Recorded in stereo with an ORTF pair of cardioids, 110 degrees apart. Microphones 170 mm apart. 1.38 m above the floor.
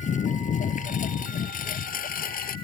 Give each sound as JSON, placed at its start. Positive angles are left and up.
{"t": 0.0, "sound": "a lawn mower", "azimuth_deg": 45}